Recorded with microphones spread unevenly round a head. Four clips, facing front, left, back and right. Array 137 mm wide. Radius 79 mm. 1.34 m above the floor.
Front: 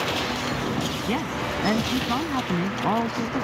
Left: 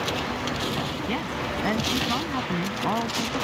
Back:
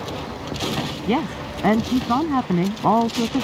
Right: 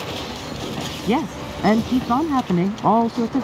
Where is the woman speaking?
125° right.